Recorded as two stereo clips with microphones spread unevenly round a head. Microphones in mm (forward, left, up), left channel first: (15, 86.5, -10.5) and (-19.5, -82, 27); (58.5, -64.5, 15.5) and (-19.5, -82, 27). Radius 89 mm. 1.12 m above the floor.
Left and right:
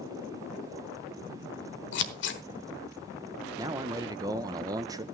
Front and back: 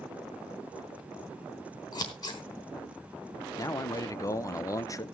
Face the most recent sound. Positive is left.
turn(degrees=-25)